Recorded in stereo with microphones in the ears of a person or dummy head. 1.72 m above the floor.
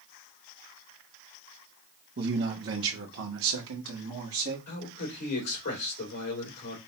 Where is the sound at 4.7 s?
70° left (ahead or behind), 2.5 m.